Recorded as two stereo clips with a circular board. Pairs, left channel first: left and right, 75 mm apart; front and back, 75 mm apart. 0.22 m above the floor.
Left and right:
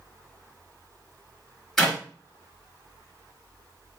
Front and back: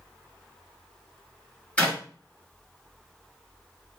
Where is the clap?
10° left, 1.3 m.